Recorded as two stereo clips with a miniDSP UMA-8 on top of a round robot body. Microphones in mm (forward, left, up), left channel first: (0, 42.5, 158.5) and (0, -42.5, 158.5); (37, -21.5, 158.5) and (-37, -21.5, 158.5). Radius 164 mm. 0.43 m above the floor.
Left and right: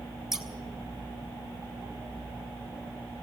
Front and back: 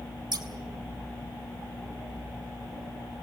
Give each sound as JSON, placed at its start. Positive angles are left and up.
{"t": 0.3, "sound": "scissors", "azimuth_deg": -175, "distance_m": 3.0}